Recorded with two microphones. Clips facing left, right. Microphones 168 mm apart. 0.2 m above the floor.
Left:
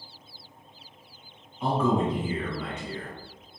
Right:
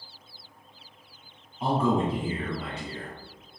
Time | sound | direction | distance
1.6 | a man speaking | 35° right (ahead or behind) | 1.5 m